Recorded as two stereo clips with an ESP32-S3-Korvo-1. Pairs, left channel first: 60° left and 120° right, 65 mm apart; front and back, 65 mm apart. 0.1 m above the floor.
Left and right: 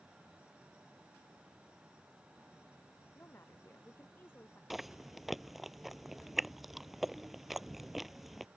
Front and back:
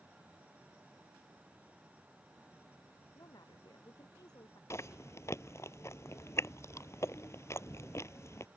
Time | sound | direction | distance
3.1 | a woman speaking | 5° left | ?
4.7 | chewing | 35° right | ?